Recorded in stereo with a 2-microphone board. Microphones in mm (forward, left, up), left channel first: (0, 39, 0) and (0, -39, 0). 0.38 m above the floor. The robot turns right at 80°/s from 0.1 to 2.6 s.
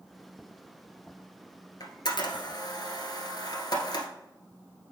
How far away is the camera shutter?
About 1.5 m.